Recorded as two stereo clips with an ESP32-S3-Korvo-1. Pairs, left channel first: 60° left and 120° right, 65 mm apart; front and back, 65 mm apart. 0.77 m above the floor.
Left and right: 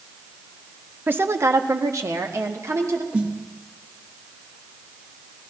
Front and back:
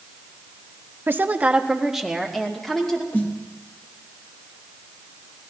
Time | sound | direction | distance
1.1 | a woman speaking | 160° right | 0.7 m
3.1 | a snare drum | 55° right | 1.6 m